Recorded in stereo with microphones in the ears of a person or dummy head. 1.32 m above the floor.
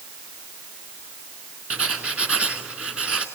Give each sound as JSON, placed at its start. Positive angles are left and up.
{"t": 1.7, "sound": "writing", "side_deg": -5, "distance_m": 2.5}